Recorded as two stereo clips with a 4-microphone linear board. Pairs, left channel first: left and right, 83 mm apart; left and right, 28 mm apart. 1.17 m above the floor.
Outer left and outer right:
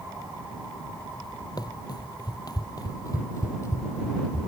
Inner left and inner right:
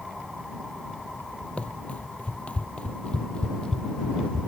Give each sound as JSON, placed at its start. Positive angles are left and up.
{"t": 1.6, "sound": "running footsteps", "side_deg": 50}